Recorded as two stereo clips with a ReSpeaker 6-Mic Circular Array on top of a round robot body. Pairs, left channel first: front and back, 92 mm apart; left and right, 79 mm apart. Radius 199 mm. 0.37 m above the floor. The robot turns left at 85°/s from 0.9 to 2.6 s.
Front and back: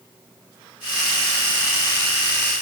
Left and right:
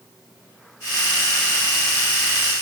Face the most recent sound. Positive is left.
No sound to turn to.